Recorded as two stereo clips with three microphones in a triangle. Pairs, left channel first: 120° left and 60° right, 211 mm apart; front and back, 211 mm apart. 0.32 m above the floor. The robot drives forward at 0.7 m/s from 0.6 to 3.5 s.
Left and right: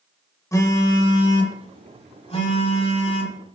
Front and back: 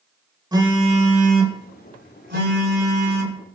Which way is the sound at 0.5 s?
165° left.